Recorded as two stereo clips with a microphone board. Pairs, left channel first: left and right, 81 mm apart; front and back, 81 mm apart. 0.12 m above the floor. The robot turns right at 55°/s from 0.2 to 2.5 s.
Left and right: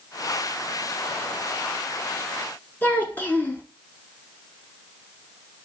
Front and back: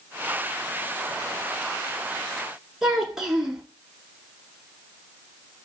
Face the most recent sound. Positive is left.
turn(degrees=105)